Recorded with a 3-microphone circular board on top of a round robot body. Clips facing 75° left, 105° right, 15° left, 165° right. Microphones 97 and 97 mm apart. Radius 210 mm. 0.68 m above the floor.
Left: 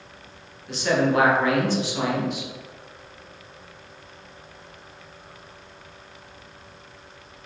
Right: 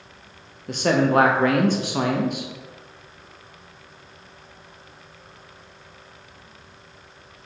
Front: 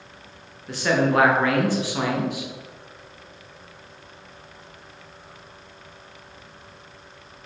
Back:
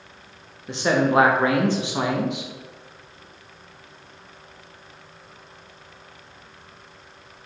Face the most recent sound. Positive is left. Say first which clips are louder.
# right 2 dB, back 1 dB
turn(degrees=-105)